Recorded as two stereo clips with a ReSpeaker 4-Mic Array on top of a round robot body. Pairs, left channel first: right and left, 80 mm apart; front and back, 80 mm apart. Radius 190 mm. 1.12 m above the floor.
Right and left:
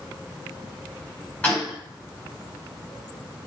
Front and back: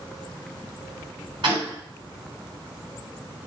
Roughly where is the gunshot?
Behind.